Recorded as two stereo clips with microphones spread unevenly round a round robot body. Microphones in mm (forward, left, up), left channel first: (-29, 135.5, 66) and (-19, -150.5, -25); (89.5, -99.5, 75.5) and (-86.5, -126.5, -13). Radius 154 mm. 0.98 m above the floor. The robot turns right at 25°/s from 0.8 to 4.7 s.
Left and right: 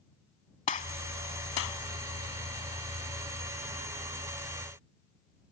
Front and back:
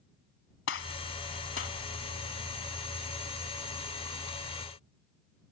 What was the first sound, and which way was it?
A gunshot, 25° left.